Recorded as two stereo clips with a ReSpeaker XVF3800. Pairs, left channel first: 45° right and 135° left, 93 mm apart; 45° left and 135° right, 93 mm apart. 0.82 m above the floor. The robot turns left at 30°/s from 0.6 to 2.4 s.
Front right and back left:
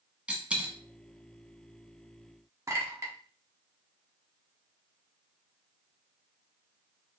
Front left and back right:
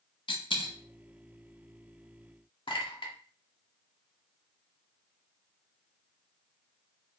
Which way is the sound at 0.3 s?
55° left.